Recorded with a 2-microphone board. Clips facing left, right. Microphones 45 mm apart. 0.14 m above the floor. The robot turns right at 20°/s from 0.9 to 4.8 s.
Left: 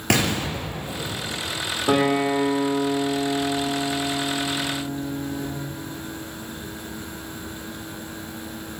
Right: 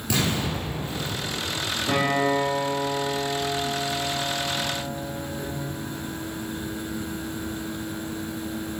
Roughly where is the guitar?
Behind left.